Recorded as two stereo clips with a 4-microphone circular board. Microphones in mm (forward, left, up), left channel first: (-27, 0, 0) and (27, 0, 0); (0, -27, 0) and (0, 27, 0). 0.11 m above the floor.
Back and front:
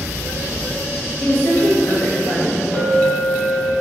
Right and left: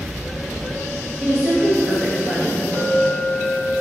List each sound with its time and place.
1.2 s a woman speaking: 145° left, 1.3 m; by 2.6 s 170° right, 1.5 m
2.7 s a clink: 150° right, 1.3 m